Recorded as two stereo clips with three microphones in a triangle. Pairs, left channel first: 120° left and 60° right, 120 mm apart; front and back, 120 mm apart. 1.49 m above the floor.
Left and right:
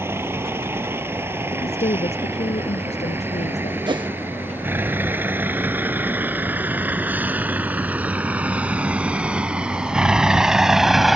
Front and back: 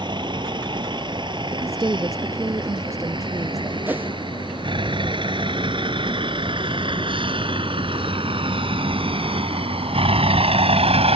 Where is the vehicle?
130° right; by 11.2 s 150° right.